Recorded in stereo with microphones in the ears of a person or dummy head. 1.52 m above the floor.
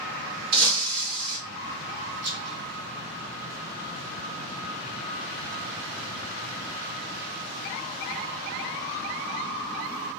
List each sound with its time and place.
0.5 s breaking glass: 50° right (ahead or behind), 1.9 m
2.2 s a rattle: 60° right (ahead or behind), 1.9 m